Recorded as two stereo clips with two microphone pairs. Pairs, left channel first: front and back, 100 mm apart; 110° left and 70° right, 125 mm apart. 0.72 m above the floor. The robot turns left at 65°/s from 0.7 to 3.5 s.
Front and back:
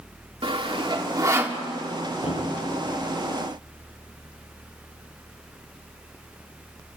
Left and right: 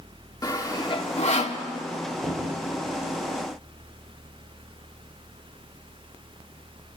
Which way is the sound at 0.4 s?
165° left.